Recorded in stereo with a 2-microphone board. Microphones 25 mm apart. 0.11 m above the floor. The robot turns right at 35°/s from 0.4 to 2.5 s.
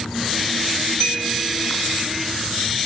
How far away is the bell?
About 2.5 m.